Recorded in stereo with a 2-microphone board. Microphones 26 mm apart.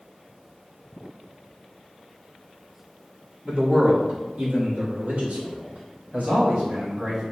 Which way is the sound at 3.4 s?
45° right (ahead or behind).